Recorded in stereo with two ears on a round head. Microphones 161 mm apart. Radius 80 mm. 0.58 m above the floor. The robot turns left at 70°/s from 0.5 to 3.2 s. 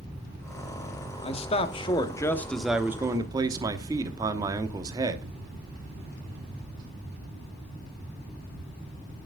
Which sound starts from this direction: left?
A man speaking, at 1.2 s.